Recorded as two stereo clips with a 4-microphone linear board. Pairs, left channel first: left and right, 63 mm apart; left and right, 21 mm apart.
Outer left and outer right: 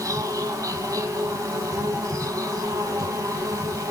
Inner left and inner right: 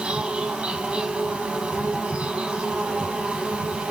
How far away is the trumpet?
I don't hear a trumpet.